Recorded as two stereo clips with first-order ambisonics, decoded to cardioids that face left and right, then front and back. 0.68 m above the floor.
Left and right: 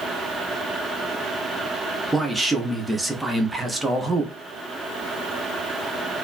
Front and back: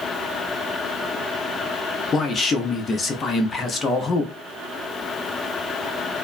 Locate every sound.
2.1 s a man speaking: 10° right, 0.5 m